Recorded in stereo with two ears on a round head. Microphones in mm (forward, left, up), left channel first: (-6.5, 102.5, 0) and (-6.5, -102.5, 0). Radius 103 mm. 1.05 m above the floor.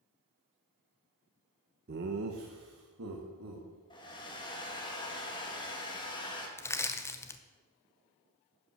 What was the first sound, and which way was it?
Laughter, 40° right (ahead or behind).